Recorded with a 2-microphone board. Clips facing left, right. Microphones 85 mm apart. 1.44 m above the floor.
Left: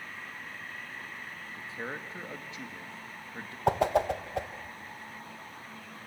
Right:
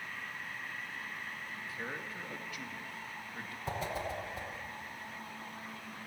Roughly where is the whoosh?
Left.